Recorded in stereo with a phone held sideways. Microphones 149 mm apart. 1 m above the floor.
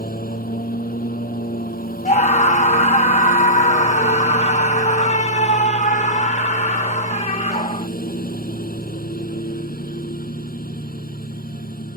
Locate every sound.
0.0 s a lawn mower: 75° left (ahead or behind)
2.0 s a scream: 50° left (ahead or behind)